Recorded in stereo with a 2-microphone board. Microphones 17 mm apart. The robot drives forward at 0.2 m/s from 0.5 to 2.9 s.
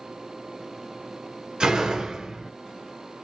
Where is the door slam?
50° right (ahead or behind), 1.4 m.